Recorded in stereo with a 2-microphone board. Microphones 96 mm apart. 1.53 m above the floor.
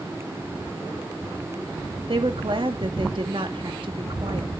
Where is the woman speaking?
60° right (ahead or behind), 2 m.